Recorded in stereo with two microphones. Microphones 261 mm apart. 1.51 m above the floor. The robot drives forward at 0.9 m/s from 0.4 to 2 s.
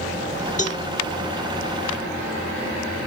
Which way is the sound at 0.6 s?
30° left (ahead or behind).